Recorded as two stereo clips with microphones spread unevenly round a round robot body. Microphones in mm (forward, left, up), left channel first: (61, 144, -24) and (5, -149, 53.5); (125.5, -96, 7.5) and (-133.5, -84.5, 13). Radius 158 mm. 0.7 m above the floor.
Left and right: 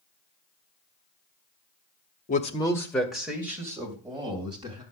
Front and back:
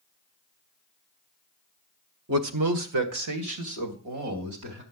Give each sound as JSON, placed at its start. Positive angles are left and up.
{"t": 2.3, "sound": "a man speaking", "azimuth_deg": 135, "distance_m": 1.3}